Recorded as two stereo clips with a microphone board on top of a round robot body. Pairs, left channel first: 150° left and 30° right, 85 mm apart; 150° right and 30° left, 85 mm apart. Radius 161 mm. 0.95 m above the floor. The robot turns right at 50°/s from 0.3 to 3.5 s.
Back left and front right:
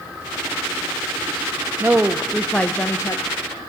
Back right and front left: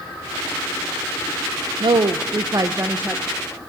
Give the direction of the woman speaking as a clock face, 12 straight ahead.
11 o'clock.